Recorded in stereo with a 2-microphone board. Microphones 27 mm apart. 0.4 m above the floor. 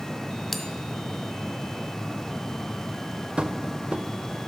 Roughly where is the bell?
Centre.